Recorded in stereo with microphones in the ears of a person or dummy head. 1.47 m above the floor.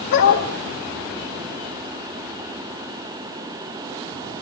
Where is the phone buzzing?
I don't hear a phone buzzing.